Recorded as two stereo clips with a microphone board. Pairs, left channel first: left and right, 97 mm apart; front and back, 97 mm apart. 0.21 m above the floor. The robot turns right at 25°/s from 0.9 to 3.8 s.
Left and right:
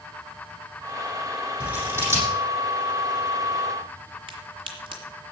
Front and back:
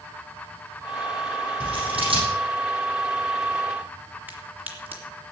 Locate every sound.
1.6 s scissors: 165° right, 7 m; by 2.2 s 150° right, 7 m
4.3 s a crack: 110° right, 3 m